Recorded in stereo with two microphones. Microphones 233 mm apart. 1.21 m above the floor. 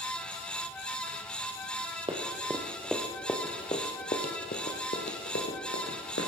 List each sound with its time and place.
2.1 s running footsteps: 25° right (ahead or behind), 2.5 m; by 6.3 s 65° left (ahead or behind), 4 m